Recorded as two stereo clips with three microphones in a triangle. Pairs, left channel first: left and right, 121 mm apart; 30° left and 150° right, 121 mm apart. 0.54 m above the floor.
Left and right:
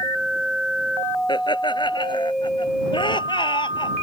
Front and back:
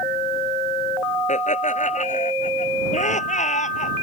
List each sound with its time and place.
1.3 s laughter: 40° left